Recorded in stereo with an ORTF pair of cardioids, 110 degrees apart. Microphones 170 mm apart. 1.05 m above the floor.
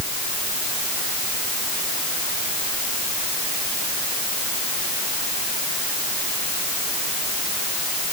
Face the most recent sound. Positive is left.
No sound to turn to.